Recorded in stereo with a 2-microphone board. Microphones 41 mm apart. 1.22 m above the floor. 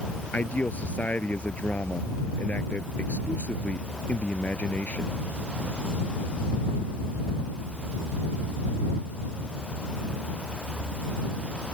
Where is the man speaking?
40° left (ahead or behind).